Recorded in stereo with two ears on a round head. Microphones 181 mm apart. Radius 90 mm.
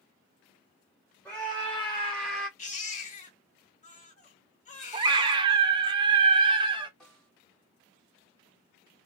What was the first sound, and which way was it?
A scream, 10° left (ahead or behind).